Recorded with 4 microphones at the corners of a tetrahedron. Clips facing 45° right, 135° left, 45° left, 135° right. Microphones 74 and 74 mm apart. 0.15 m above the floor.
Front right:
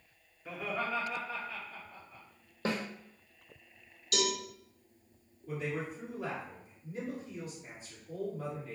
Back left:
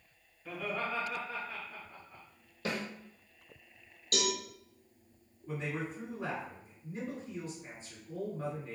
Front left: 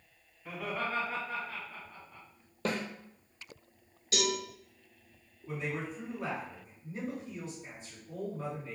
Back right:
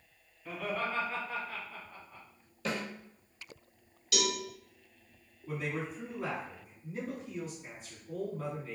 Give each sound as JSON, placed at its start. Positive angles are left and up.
{"t": 0.5, "sound": "laughter", "azimuth_deg": -10, "distance_m": 1.4}
{"t": 2.6, "sound": "a snare drum", "azimuth_deg": 10, "distance_m": 0.8}
{"t": 4.1, "sound": "a cowbell", "azimuth_deg": 95, "distance_m": 1.2}
{"t": 5.5, "sound": "a man speaking", "azimuth_deg": 140, "distance_m": 1.9}